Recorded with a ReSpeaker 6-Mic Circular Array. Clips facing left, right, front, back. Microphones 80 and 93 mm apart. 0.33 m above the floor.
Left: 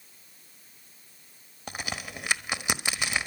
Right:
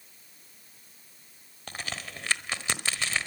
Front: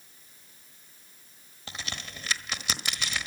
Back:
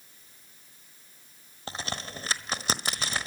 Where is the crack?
155° left, 1.1 m.